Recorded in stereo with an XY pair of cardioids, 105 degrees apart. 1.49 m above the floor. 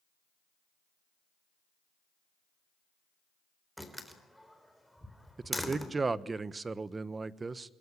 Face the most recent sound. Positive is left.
turn(degrees=-30)